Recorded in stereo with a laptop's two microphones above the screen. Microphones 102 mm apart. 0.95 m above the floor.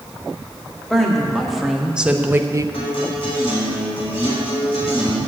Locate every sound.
0.9 s a woman speaking: 5° left (ahead or behind), 1.9 m; by 2.6 s 35° right (ahead or behind), 0.6 m
2.7 s a guitar: 65° left (ahead or behind), 5.5 m